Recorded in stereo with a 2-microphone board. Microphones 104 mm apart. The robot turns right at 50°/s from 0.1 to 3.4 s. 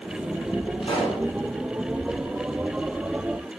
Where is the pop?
60° left (ahead or behind), 9 m; by 1.2 s 80° left, 9 m.